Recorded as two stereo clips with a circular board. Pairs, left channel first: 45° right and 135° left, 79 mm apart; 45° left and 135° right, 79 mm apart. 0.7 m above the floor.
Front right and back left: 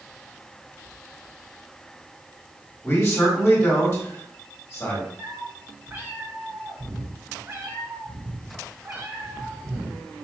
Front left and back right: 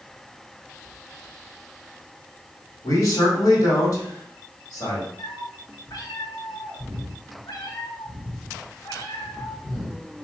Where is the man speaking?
15° left, 1.6 m.